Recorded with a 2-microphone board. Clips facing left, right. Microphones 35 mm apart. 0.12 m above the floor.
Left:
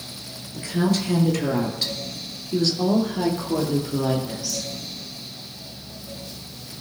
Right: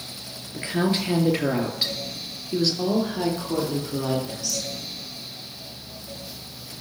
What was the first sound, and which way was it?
A woman speaking, 35° right (ahead or behind).